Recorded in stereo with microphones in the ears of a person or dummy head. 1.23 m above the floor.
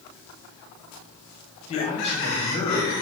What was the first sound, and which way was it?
A man speaking, 45° left (ahead or behind).